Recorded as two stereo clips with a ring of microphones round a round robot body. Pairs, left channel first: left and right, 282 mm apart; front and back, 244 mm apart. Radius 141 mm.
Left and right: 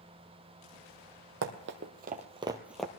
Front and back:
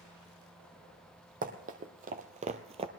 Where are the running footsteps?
125° right, 1.3 m; by 2.9 s 170° left, 0.8 m.